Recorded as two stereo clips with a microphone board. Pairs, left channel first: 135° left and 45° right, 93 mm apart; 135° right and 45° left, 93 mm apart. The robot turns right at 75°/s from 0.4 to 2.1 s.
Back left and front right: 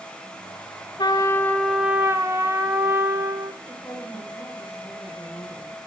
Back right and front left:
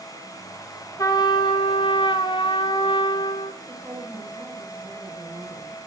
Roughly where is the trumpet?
Behind.